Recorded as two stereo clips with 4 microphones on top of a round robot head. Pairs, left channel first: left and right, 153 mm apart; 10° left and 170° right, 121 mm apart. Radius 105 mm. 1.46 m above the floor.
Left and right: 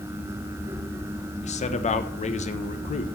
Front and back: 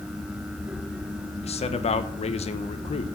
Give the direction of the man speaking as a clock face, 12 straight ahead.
10 o'clock.